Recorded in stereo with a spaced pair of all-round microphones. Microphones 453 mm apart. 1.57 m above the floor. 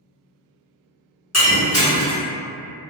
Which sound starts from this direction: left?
Breaking glass, at 1.3 s.